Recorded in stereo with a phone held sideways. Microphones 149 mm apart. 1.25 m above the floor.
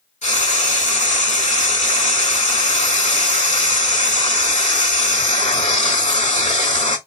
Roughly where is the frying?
Left.